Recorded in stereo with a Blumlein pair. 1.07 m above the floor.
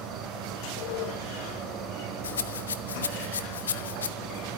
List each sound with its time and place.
0.0 s an insect: 30° right, 2.5 m
2.2 s a rattle: 70° left, 0.8 m